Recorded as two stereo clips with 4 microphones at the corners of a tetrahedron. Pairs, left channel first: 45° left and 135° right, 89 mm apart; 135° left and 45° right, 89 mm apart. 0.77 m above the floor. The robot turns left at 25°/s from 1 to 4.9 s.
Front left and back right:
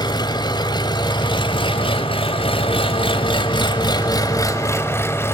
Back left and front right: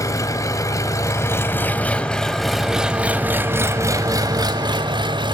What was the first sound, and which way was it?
An engine running, 85° left.